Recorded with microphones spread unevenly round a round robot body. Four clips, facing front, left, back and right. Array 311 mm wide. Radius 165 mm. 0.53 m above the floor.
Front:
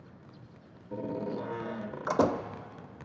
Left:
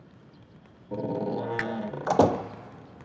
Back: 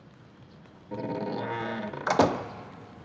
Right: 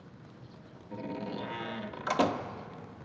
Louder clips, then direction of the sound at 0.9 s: Left 8 dB, back 3 dB; 110° left.